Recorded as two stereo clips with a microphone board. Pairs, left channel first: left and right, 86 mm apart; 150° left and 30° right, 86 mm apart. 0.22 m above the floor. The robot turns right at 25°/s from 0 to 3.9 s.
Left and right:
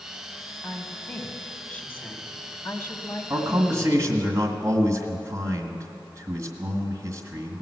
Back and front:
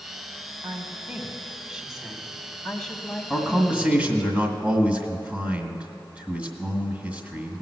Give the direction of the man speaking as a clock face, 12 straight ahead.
3 o'clock.